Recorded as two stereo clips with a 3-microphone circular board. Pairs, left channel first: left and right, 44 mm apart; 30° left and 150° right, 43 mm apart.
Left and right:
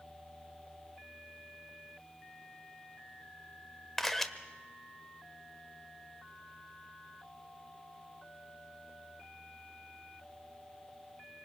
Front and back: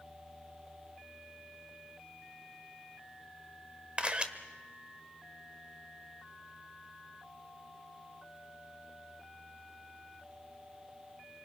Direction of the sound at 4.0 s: 165° left.